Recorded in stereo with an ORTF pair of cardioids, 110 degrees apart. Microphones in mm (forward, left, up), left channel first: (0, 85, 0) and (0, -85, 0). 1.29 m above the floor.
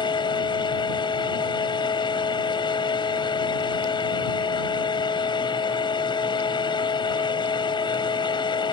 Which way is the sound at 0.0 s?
25° left.